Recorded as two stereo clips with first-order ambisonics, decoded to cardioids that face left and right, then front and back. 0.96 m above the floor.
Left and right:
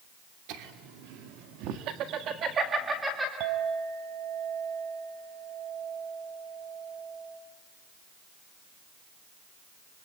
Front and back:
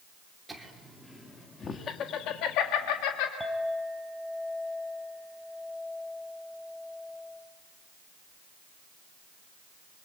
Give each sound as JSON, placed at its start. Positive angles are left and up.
{"t": 0.5, "sound": "laughter", "azimuth_deg": -95, "distance_m": 3.0}
{"t": 3.4, "sound": "a clink", "azimuth_deg": -95, "distance_m": 3.5}